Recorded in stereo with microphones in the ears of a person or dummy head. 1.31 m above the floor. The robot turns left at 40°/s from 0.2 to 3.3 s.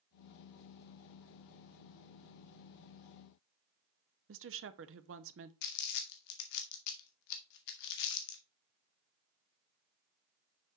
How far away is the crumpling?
About 0.8 m.